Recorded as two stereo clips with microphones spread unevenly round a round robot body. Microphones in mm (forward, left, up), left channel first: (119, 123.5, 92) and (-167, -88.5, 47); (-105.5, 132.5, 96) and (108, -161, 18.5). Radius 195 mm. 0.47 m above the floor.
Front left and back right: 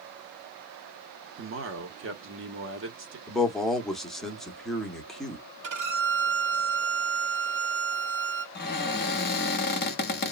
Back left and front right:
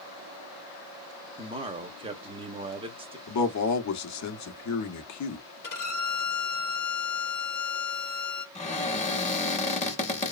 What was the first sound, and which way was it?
A man speaking, 115° right.